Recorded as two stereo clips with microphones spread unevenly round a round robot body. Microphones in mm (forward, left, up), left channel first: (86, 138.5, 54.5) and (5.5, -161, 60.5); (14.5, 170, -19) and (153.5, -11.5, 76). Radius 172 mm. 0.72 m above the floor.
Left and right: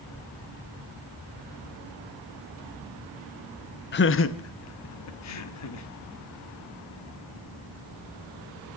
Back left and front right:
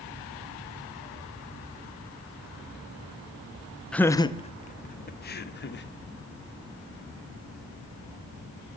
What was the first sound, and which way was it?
Laughter, 85° left.